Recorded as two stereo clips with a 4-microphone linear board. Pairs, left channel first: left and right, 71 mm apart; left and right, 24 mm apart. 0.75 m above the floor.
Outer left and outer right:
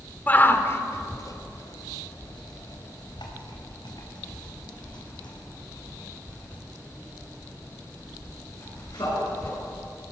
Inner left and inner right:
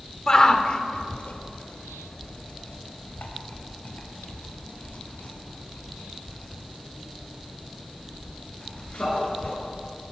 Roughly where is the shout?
Left.